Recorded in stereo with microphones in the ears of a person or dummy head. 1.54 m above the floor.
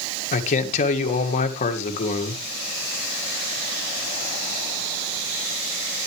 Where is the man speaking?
45° left (ahead or behind), 2.0 m.